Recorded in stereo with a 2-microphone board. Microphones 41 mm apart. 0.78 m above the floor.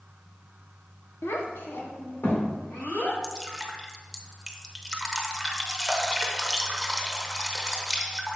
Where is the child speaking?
65° left (ahead or behind), 1.1 m; by 3.1 s 70° left (ahead or behind), 3 m.